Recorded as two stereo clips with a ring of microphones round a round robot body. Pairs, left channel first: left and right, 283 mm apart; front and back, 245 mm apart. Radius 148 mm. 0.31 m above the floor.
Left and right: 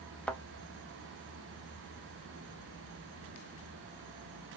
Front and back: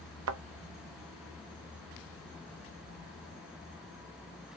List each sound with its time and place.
0.3 s a thud: 175° left, 0.8 m